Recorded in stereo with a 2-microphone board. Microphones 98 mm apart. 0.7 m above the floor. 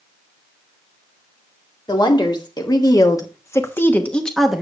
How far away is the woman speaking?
About 2 m.